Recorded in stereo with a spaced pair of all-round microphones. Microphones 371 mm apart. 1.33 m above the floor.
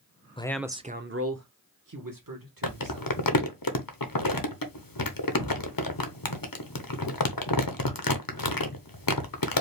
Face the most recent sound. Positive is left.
turn(degrees=65)  # may be behind; listen again after turning